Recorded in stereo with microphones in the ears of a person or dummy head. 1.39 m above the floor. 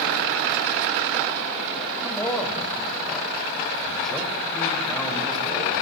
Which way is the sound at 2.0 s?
5° right (ahead or behind).